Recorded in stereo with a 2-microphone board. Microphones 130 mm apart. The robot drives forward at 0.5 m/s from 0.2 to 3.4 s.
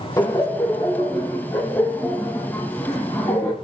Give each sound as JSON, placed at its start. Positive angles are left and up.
{"t": 0.2, "sound": "laughter", "side_deg": 30, "distance_m": 1.2}